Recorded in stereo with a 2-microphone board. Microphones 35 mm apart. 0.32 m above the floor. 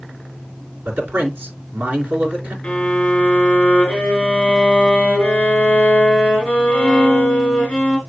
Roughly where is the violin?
Left.